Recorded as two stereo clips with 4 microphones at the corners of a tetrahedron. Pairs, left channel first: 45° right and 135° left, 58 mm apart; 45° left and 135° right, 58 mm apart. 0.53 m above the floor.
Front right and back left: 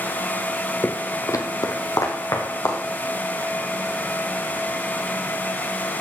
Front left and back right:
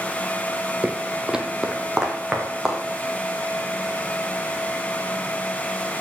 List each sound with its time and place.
0.8 s footsteps: 80° right, 0.6 m; by 2.8 s 55° right, 3 m